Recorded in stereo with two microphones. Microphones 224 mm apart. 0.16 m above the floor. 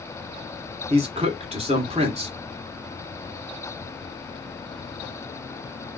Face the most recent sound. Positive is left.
turn(degrees=-30)  # may be behind; listen again after turning